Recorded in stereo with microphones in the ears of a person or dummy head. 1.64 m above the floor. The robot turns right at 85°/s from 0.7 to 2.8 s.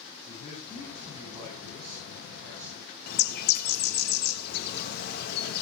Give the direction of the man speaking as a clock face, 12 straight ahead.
7 o'clock.